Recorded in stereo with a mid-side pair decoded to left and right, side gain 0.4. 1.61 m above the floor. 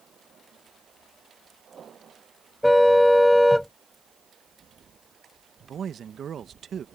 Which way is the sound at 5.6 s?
60° right.